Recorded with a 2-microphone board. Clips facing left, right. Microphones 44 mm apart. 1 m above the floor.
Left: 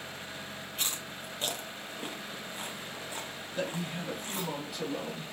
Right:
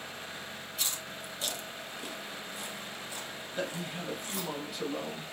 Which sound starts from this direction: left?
Chewing, at 0.8 s.